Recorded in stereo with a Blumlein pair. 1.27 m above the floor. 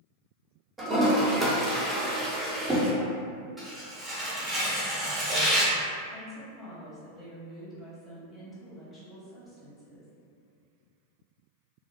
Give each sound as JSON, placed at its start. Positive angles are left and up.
{"t": 0.8, "sound": "a toilet flushing", "azimuth_deg": -10, "distance_m": 0.7}
{"t": 3.6, "sound": "tearing paper", "azimuth_deg": -5, "distance_m": 0.8}
{"t": 6.1, "sound": "a woman speaking", "azimuth_deg": 10, "distance_m": 0.9}